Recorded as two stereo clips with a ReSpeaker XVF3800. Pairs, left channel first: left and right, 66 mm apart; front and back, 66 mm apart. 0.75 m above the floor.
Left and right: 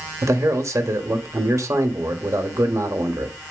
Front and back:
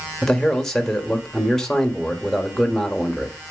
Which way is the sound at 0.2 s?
80° right.